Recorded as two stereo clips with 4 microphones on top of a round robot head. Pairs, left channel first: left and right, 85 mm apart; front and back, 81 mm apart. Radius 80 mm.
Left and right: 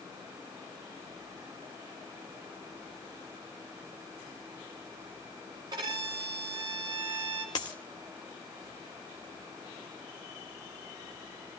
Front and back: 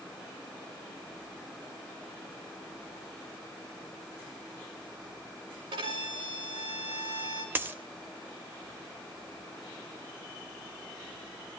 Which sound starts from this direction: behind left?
A dropped coin, at 7.5 s.